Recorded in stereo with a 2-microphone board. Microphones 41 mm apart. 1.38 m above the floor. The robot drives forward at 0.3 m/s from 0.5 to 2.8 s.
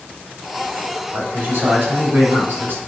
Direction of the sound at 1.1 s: 70° right (ahead or behind).